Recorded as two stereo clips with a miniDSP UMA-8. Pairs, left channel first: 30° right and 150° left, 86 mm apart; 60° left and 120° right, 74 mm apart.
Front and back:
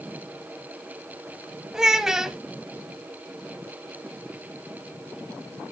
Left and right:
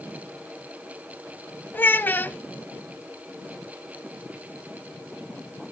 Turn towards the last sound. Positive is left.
turn(degrees=75)